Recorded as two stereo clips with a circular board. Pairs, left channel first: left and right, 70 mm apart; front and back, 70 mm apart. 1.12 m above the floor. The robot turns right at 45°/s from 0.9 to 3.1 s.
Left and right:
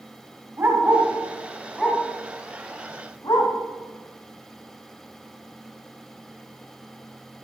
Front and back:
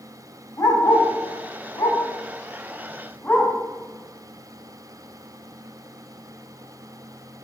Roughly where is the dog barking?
Ahead right.